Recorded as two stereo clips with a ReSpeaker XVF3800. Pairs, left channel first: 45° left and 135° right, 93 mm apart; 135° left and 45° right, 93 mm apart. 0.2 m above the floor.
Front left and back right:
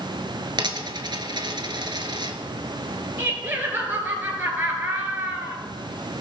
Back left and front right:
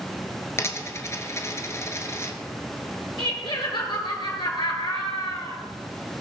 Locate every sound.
0.6 s a dropped coin: 165° right, 1.0 m
3.2 s laughter: 160° left, 3 m